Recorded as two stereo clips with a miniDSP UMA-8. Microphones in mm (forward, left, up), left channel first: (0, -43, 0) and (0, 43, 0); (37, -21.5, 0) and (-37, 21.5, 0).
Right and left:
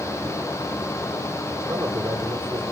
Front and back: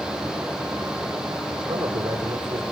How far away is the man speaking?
About 8 m.